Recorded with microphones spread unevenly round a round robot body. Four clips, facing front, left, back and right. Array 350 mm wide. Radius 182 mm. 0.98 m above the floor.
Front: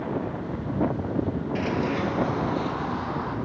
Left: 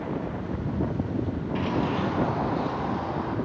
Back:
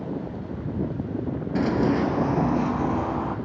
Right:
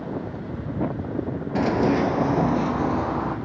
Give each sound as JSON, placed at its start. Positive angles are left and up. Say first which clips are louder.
{"t": 1.6, "sound": "running footsteps", "louder": "right 7 dB, back 6 dB", "azimuth_deg": -150, "distance_m": 1.2}